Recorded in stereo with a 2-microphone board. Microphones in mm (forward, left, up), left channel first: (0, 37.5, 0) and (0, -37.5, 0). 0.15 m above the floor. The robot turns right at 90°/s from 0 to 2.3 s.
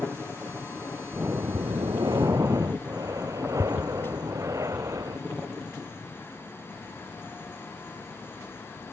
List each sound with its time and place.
1.1 s breathing: 155° right; by 5.2 s 50° right